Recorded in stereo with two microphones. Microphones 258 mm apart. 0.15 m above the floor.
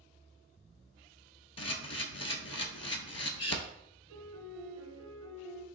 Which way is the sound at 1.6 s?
70° left (ahead or behind).